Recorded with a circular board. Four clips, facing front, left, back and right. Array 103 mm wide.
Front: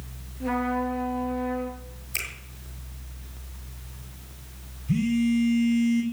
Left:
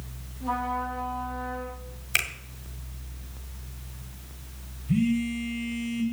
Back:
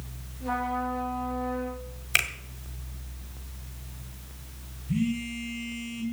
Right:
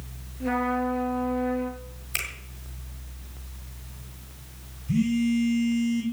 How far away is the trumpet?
About 2.5 m.